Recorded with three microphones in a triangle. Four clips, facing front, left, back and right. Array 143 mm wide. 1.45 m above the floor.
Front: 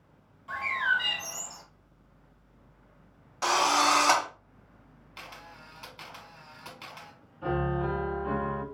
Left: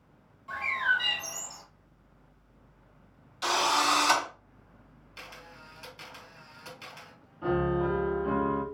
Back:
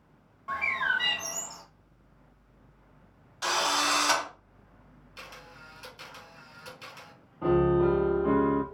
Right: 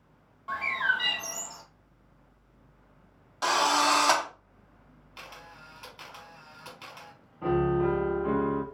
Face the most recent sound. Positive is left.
turn(degrees=-165)